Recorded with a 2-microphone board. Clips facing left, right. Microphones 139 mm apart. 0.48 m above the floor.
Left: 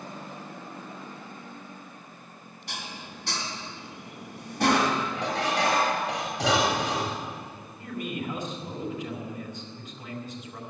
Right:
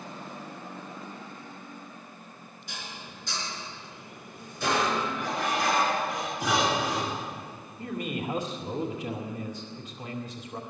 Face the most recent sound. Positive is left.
turn(degrees=-35)  # may be behind; listen again after turning